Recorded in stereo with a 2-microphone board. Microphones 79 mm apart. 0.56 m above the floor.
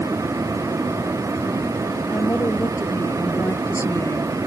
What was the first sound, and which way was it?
A woman speaking, 30° left (ahead or behind).